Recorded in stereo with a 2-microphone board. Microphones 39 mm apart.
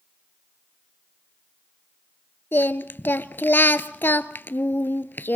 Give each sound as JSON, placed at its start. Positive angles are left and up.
{"t": 2.5, "sound": "singing", "side_deg": 65, "distance_m": 0.6}